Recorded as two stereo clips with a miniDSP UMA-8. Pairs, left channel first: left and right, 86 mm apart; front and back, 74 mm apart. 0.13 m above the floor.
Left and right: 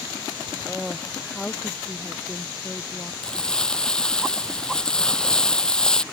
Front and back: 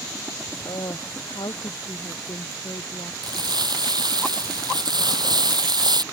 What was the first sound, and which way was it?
A woman speaking, 10° left.